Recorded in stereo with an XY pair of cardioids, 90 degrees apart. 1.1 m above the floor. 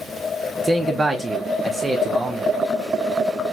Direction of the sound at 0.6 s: 20° right.